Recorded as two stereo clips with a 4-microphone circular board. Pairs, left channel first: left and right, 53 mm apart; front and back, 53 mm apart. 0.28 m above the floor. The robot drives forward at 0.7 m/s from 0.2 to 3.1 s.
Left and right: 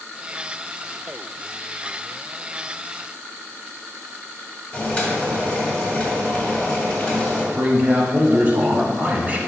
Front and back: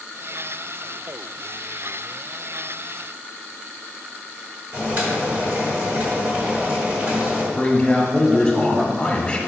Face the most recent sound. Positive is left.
turn(degrees=-60)